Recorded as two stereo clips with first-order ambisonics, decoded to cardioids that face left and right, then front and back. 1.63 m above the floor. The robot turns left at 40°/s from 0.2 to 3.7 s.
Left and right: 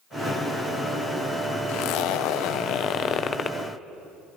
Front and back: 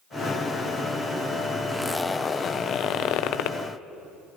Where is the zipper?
95° left, 0.8 m; by 3.6 s 20° left, 0.8 m.